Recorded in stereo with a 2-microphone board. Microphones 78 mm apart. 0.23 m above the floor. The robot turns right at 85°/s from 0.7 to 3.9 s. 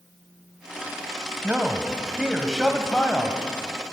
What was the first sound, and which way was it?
A man speaking, 20° right (ahead or behind).